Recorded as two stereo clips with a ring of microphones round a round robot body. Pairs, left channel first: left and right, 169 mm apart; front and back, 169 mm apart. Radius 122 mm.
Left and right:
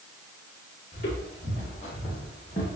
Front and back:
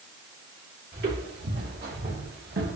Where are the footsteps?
150° left, 5 m; by 2.8 s 165° left, 4 m.